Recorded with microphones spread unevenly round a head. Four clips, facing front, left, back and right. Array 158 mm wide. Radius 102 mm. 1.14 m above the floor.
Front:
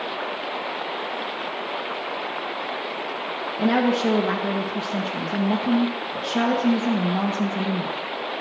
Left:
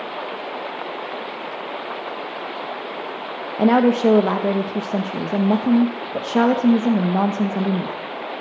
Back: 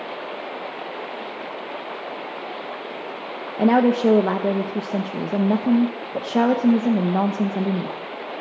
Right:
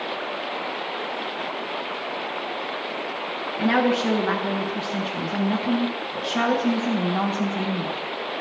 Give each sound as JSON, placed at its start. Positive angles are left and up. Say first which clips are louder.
{"t": 3.6, "sound": "a woman speaking", "louder": "left 6 dB, back 4 dB", "azimuth_deg": 140, "distance_m": 1.0}